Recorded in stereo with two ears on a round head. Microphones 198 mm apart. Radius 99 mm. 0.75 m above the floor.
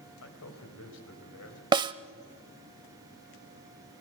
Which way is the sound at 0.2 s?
80° left.